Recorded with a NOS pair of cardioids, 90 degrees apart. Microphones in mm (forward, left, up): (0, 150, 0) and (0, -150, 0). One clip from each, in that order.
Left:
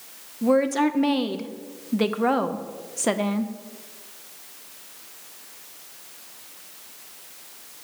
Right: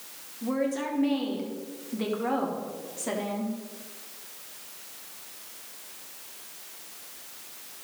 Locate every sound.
0.4 s a woman speaking: 55° left, 1.0 m